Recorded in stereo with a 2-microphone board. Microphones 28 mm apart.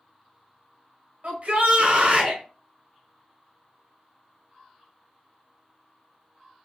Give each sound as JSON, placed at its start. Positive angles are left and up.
{"t": 1.2, "sound": "a shout", "side_deg": -55, "distance_m": 1.8}